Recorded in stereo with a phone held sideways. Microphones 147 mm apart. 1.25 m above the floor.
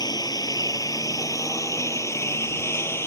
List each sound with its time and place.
0.0 s a lawn mower: 25° left (ahead or behind); by 3.1 s 15° left (ahead or behind)